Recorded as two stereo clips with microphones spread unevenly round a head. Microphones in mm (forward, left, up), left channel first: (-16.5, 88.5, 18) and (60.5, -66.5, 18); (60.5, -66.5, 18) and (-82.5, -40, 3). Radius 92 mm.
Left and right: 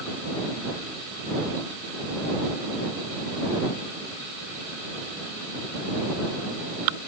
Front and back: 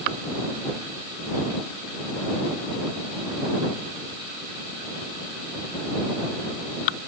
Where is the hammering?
I don't hear hammering.